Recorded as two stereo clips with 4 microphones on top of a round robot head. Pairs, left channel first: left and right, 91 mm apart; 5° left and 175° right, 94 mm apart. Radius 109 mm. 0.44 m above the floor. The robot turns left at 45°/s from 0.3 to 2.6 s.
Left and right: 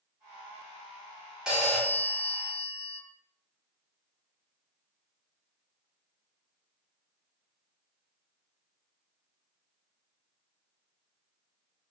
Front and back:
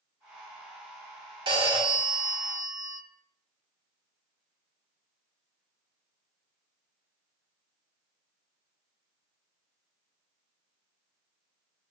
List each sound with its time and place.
1.5 s a phone ringing: 170° right, 0.7 m; by 3.0 s 140° left, 0.7 m